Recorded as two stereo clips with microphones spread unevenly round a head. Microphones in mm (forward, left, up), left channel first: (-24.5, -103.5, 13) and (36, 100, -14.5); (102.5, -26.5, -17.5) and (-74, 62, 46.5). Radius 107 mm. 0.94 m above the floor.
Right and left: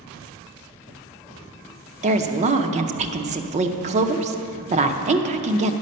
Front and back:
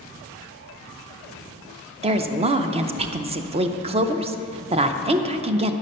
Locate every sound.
2.0 s a woman speaking: 85° left, 0.6 m